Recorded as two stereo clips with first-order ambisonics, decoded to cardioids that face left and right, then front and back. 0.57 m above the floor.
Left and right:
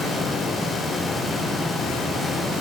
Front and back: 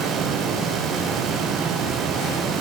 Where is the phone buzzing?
No phone buzzing in this recording.